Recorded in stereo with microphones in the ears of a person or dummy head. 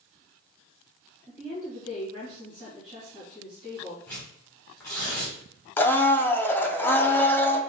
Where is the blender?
10° left (ahead or behind), 0.5 m.